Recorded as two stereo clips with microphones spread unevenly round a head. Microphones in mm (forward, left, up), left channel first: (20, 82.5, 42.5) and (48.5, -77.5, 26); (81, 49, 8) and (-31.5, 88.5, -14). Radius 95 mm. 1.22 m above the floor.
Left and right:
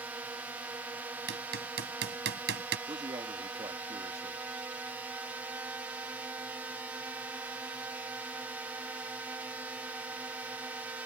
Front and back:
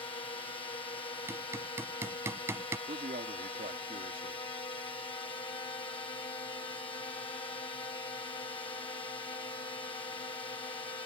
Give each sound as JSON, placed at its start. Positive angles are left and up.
{"t": 0.0, "sound": "a drone", "azimuth_deg": -15}
{"t": 1.3, "sound": "hammering", "azimuth_deg": -120}
{"t": 2.9, "sound": "a man speaking", "azimuth_deg": -150}